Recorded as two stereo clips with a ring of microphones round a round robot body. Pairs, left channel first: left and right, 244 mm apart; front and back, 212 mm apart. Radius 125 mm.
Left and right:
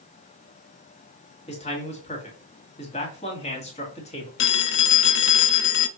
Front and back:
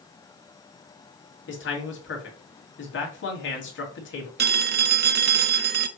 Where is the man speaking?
25° left, 2 m.